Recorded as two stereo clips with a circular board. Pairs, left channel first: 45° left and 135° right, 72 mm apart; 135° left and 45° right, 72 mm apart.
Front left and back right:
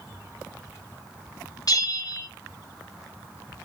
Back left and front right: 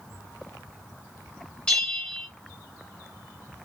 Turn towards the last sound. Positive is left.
turn(degrees=60)